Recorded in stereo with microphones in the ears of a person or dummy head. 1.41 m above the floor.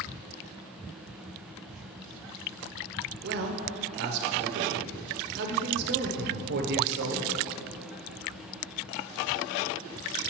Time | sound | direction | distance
3.2 | a man speaking | 60° right (ahead or behind) | 0.8 m